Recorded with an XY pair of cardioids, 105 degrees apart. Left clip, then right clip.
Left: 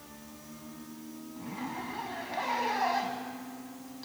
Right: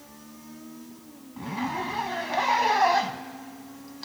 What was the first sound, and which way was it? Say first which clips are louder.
A zipper: right 9 dB; 65° right.